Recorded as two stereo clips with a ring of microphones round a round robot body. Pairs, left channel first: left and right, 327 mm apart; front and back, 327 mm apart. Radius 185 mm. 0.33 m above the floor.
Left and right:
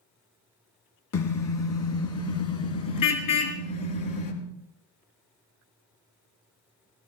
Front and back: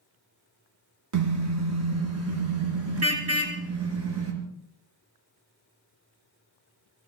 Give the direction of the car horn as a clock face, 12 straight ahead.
7 o'clock.